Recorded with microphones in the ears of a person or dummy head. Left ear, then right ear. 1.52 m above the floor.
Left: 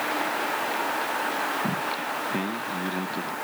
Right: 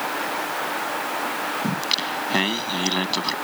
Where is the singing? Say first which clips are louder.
Right 4 dB; 75° right (ahead or behind).